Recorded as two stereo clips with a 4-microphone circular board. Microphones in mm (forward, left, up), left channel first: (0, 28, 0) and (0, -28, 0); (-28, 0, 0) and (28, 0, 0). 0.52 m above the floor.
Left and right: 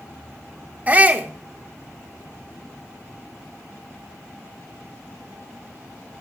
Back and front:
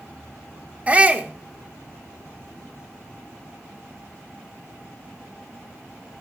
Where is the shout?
45° right, 1.1 m.